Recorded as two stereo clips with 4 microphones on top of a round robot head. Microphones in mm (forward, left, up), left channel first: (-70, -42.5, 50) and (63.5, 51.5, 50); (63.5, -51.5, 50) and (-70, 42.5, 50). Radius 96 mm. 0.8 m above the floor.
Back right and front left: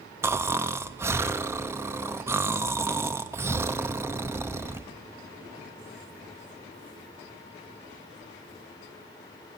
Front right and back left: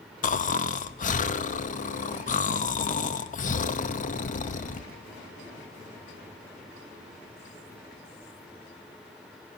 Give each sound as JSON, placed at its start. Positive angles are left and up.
{"t": 0.2, "sound": "snoring", "azimuth_deg": -35, "distance_m": 1.1}